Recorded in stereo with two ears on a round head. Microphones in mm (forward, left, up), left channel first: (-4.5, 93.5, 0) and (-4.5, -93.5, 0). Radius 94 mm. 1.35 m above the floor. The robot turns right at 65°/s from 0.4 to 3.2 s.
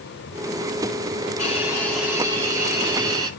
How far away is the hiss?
About 9 m.